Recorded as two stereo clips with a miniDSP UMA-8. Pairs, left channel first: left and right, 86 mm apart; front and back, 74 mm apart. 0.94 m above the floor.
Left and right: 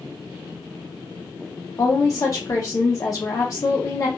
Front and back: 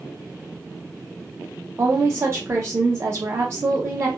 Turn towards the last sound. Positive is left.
turn(degrees=135)